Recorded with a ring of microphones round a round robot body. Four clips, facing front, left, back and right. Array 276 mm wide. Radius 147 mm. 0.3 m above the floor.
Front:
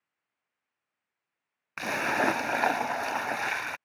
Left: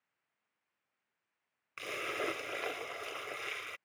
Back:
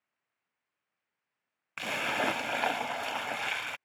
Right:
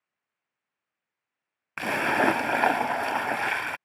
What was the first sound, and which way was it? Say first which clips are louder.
A splash: right 14 dB, front 4 dB; 75° right.